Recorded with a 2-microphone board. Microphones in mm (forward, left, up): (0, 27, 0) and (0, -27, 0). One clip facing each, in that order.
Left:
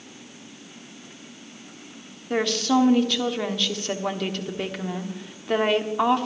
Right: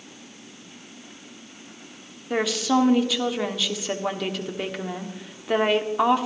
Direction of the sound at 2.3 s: 5° right (ahead or behind).